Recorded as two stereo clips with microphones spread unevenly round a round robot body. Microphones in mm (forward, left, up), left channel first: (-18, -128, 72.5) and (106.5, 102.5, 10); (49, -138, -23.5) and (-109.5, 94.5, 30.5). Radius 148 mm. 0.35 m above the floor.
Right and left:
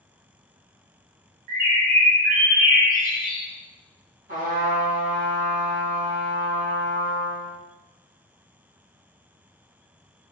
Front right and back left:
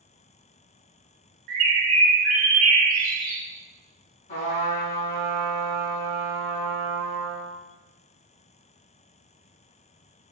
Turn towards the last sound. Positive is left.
turn(degrees=10)